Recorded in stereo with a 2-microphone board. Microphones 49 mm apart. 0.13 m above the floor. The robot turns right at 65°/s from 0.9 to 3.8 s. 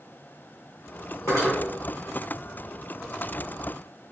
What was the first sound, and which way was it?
Cutlery clinking, 65° left (ahead or behind).